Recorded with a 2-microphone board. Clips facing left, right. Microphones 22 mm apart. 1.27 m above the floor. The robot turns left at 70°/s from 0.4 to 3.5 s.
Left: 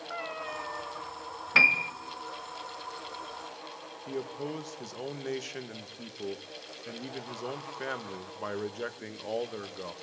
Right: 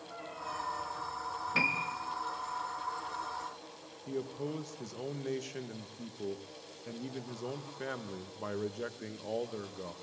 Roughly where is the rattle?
I don't hear a rattle.